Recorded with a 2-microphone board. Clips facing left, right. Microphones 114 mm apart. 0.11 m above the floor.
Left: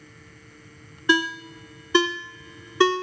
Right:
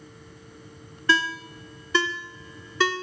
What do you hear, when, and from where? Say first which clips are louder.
1.1 s a ringtone: left 2 dB; 20° left (ahead or behind), 0.6 m